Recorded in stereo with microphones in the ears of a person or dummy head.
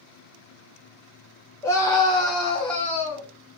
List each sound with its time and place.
1.6 s a scream: 15° left (ahead or behind), 0.5 m; by 3.3 s 30° left (ahead or behind), 2 m